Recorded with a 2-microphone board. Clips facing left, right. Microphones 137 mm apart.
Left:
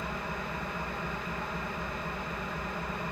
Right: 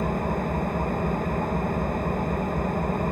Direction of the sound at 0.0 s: 45° right (ahead or behind).